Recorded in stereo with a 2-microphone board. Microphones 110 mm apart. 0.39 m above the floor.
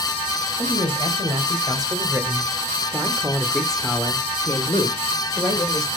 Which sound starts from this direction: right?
A man speaking, at 0.6 s.